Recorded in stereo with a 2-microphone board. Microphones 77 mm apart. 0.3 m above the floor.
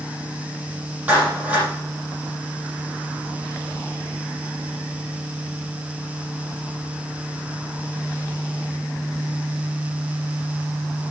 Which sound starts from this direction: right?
A clap, at 1.1 s.